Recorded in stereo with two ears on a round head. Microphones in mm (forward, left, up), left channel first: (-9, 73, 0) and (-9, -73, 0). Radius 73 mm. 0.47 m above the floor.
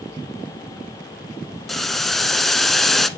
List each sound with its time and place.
1.7 s boiling: centre (ahead or behind), 0.7 m